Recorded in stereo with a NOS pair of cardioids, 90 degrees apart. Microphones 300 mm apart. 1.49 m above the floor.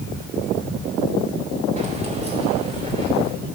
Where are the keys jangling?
25° right, 2.5 m; by 3.3 s 20° right, 3.5 m.